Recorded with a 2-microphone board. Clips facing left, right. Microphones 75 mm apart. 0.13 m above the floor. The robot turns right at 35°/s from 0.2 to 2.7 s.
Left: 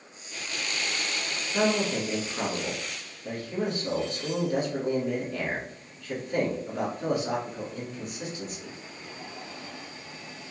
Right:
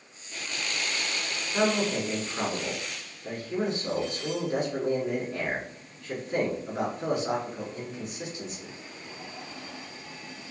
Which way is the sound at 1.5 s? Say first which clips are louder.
Even; 20° right (ahead or behind).